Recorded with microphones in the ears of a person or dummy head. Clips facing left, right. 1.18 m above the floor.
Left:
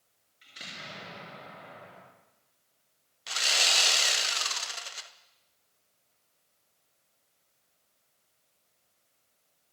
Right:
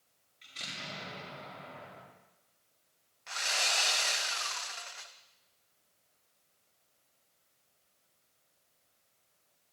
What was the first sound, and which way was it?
An explosion, 10° left (ahead or behind).